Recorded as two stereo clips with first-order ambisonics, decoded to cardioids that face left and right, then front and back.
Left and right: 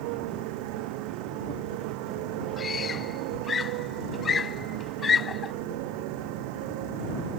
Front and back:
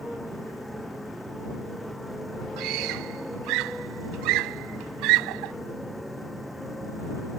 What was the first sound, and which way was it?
A motorcycle, 90° right.